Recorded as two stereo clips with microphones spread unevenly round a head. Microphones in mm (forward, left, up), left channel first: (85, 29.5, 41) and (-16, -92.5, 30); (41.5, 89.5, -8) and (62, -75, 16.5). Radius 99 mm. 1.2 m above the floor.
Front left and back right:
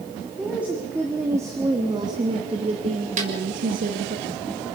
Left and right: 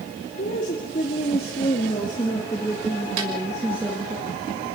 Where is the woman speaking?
145° left, 3.5 m; by 4.2 s 160° right, 2.5 m.